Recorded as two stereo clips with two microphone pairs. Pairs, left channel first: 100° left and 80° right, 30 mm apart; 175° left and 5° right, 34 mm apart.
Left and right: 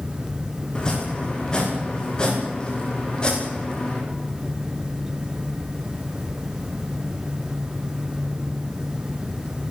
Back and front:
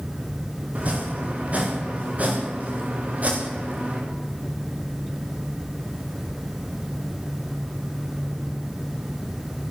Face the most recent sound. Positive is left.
turn(degrees=40)